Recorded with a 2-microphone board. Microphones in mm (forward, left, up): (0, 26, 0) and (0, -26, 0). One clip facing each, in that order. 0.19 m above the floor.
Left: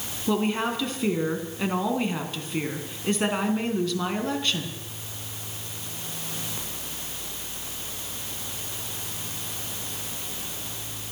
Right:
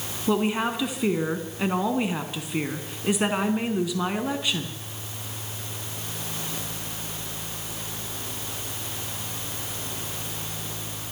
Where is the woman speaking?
10° right (ahead or behind), 1.9 m.